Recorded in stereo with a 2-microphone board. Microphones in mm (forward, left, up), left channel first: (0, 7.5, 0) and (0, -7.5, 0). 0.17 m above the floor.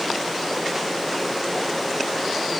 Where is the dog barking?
No dog barking in this recording.